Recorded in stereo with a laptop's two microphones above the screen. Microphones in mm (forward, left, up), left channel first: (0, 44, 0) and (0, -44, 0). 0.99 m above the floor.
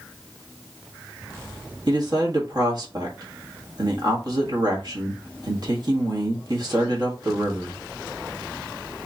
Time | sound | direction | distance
1.9 | a man speaking | 50° right (ahead or behind) | 1.4 m